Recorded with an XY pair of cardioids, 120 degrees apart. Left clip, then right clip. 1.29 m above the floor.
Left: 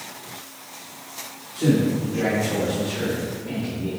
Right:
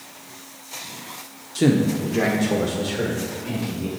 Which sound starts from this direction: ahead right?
A man speaking, at 1.6 s.